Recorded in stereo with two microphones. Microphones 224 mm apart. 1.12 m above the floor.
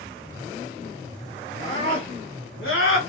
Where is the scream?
30° left (ahead or behind), 1.5 m; by 3.0 s 65° left (ahead or behind), 1.1 m.